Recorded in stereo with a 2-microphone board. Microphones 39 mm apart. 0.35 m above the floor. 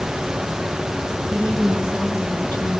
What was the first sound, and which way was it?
A woman speaking, 20° left (ahead or behind).